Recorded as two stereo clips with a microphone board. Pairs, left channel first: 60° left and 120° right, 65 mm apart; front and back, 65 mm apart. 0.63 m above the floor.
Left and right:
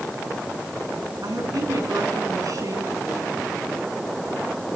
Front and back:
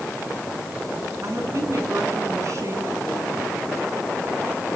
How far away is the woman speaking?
About 6 m.